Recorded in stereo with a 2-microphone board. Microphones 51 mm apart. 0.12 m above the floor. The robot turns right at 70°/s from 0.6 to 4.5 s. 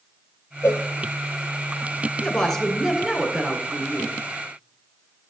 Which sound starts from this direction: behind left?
A woman speaking, at 2.2 s.